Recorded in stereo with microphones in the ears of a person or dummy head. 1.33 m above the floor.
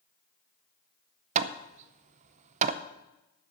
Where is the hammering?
40° right (ahead or behind), 0.5 m.